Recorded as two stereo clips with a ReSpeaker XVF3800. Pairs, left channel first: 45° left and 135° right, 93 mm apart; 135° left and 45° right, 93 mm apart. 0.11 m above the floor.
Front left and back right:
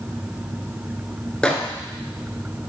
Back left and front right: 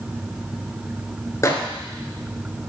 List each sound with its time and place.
1.4 s a microwave: 120° left, 1.0 m